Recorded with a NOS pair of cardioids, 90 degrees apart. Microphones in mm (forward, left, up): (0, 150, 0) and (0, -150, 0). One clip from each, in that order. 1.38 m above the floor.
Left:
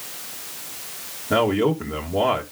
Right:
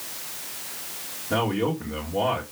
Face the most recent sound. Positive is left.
turn(degrees=35)